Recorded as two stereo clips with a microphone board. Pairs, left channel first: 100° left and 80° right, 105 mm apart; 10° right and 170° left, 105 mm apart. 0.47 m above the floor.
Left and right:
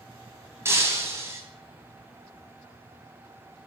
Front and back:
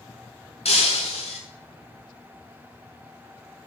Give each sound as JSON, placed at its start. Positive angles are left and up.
{"t": 0.7, "sound": "breaking glass", "azimuth_deg": -15, "distance_m": 2.0}